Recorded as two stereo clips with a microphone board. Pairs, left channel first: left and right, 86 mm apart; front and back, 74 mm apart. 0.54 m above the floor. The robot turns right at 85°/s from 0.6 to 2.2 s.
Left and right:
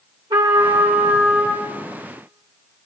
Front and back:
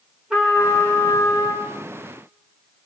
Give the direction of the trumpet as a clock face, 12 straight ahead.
3 o'clock.